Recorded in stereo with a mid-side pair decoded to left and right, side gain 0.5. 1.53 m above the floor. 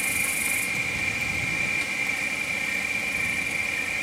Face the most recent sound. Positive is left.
turn(degrees=0)